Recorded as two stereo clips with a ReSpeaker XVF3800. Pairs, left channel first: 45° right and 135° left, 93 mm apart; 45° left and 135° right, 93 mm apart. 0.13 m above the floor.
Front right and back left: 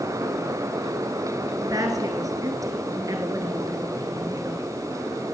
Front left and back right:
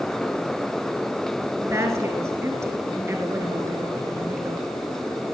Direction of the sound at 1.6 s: 170° left.